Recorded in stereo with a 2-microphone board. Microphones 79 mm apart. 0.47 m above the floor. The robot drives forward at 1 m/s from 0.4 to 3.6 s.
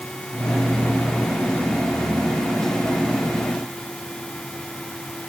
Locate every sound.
Only background noise.